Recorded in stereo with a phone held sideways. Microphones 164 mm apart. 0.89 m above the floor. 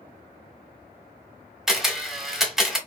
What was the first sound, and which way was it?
A camera shutter, centre (ahead or behind).